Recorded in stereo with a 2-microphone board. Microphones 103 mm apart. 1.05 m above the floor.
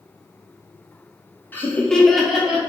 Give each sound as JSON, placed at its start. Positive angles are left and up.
{"t": 1.5, "sound": "laughter", "side_deg": 20, "distance_m": 0.6}